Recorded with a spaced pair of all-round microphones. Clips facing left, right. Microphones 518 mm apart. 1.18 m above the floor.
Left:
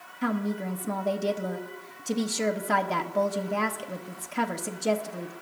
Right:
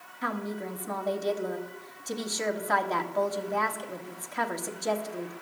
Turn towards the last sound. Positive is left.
turn(degrees=55)  # may be behind; listen again after turning